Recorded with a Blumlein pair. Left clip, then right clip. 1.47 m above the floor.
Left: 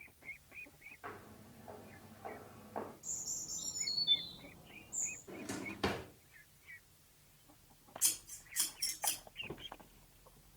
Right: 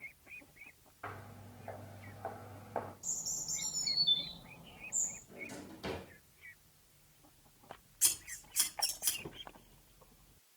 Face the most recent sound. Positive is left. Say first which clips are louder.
# right 3 dB
turn(degrees=-15)